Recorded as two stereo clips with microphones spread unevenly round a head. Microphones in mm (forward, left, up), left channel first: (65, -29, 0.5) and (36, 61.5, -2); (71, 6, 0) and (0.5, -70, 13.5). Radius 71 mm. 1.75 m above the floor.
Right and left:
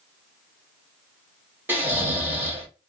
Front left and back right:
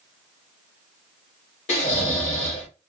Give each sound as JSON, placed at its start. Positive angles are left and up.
{"t": 1.7, "sound": "snoring", "azimuth_deg": 40, "distance_m": 2.0}